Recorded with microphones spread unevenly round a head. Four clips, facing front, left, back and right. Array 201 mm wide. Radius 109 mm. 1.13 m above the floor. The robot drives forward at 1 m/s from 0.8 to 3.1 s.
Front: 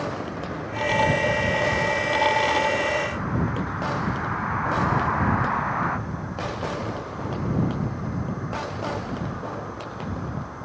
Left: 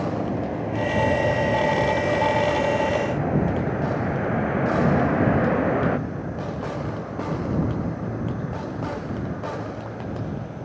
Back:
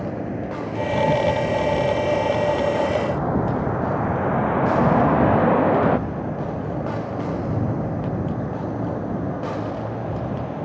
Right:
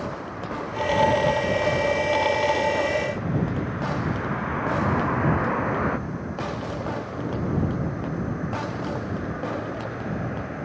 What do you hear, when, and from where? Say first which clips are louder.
0.0 s a vehicle: left 6 dB, back 3 dB; 120° left; by 10.7 s 165° right